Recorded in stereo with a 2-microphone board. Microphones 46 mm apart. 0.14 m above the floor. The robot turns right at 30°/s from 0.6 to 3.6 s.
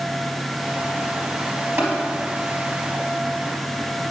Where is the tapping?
55° right (ahead or behind), 3.5 m; by 1.9 s 50° right (ahead or behind), 3.5 m.